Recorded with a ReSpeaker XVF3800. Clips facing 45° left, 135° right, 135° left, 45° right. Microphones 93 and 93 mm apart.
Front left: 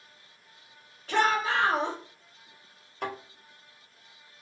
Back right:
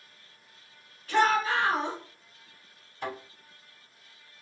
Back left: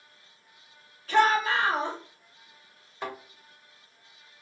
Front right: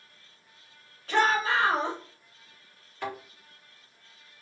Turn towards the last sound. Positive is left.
turn(degrees=60)